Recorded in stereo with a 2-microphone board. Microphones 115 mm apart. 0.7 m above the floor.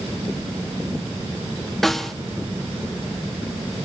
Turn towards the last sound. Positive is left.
turn(degrees=0)  # may be behind; listen again after turning